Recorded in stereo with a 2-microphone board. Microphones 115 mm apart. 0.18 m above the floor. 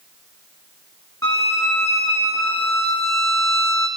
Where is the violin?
25° left (ahead or behind), 1.7 m.